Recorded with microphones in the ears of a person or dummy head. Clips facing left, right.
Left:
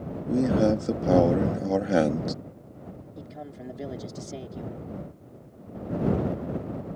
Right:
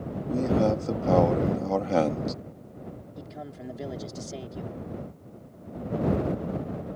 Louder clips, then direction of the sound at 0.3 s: Left 2 dB; 15° left (ahead or behind).